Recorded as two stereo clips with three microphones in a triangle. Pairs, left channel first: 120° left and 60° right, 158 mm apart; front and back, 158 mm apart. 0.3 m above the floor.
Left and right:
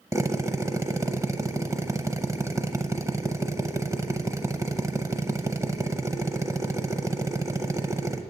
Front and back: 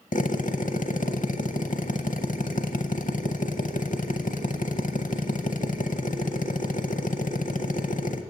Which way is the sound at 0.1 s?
10° left.